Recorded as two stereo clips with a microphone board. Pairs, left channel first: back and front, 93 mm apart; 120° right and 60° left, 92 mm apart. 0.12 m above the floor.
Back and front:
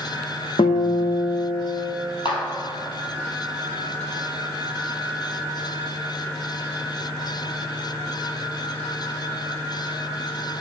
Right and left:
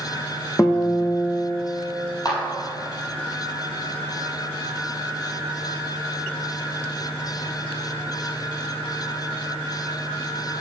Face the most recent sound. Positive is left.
turn(degrees=-160)